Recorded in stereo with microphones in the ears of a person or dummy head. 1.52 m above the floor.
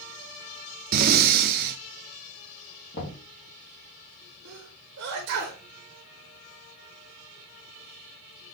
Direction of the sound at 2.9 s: 55° left (ahead or behind).